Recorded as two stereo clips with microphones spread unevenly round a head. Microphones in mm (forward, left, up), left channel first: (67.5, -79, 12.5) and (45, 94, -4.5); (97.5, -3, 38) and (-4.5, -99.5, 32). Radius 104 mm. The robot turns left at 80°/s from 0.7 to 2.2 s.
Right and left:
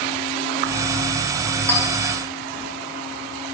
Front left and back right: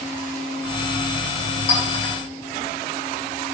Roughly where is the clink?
Ahead.